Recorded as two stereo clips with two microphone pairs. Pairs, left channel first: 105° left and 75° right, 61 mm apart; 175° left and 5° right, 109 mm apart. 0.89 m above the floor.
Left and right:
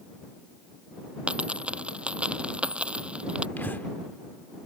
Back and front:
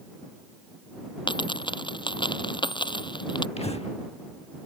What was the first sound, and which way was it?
A dropped coin, 145° right.